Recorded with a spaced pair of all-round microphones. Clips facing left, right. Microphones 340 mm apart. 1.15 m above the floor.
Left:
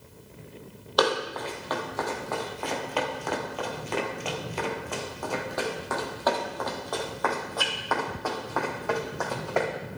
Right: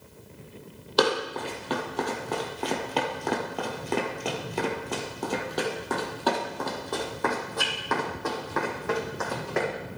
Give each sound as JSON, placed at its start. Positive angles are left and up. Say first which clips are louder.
{"t": 1.0, "sound": "running footsteps", "louder": "right 1 dB", "side_deg": -35, "distance_m": 2.5}